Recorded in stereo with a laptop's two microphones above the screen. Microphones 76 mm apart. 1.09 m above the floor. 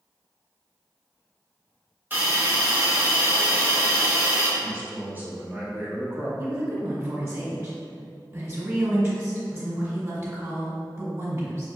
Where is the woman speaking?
40° right (ahead or behind), 1.9 m.